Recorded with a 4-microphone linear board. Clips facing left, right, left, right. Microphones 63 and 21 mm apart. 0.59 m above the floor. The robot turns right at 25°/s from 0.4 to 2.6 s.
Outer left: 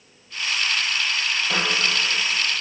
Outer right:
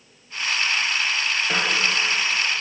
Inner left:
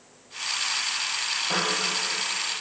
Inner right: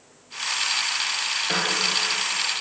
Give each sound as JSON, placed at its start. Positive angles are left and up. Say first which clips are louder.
{"t": 1.5, "sound": "a piano", "louder": "even, inner right 1 dB", "side_deg": -40, "distance_m": 3.0}